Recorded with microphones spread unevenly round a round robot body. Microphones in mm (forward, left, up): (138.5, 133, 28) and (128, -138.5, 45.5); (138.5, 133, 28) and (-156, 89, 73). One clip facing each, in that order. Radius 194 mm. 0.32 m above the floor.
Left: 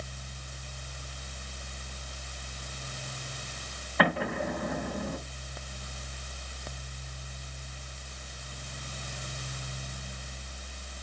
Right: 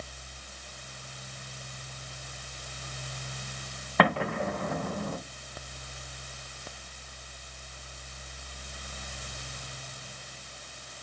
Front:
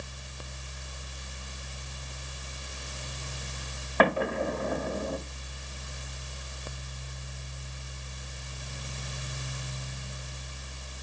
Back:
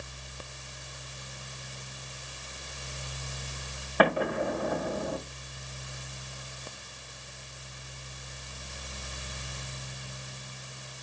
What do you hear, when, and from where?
4.0 s an explosion: 90° right, 4 m